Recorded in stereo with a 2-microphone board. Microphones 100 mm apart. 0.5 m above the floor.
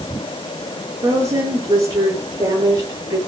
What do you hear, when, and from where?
1.0 s a woman speaking: 35° right (ahead or behind), 10 m